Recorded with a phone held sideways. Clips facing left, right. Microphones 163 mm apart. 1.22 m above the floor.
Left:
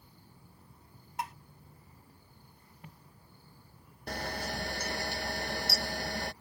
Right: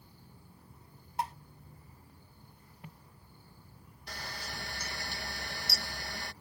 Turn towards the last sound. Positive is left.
turn(degrees=55)  # may be behind; listen again after turning